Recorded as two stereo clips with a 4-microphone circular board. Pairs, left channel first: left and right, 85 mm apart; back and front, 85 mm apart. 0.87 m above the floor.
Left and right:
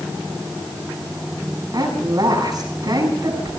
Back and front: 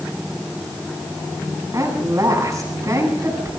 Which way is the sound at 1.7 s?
55° right.